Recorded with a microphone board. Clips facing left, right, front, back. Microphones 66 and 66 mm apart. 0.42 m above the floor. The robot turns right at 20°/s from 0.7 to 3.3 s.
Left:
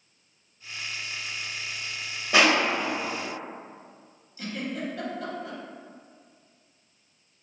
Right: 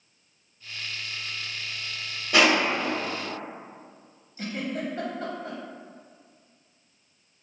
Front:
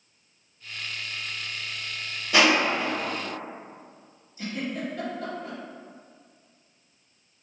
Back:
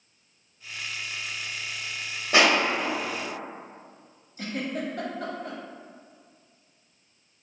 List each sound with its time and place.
2.3 s crushing: 155° left, 1.0 m; by 2.9 s 170° left, 1.0 m
4.4 s a giggle: 145° right, 0.6 m